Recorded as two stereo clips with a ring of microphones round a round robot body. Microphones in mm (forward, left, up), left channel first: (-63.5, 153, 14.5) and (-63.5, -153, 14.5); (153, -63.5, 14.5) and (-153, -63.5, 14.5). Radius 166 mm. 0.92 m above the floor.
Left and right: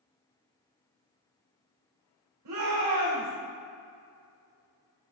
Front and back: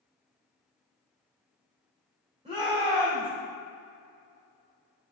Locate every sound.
2.5 s a shout: 110° right, 3.5 m